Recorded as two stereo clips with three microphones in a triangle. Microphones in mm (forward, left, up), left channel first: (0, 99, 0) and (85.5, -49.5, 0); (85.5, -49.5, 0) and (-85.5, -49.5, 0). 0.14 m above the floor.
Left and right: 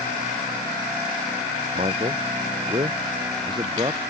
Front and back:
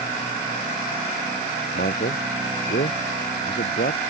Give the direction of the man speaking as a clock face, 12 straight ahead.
12 o'clock.